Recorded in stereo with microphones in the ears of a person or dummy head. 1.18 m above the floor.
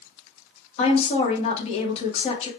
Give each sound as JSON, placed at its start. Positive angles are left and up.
{"t": 0.8, "sound": "a woman speaking", "side_deg": 35, "distance_m": 1.3}